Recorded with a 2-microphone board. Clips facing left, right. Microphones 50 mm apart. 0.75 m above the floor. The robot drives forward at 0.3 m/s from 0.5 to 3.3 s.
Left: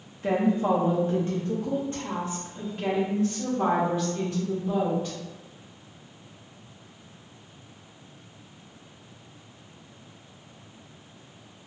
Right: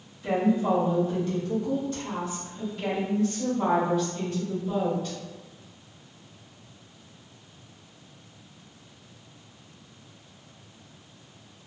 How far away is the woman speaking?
About 0.7 m.